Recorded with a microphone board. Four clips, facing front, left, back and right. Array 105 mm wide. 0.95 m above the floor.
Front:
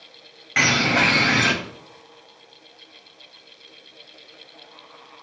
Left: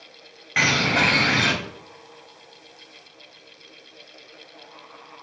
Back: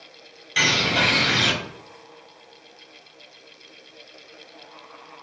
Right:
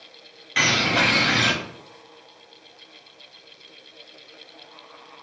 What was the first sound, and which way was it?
A bird, 25° left.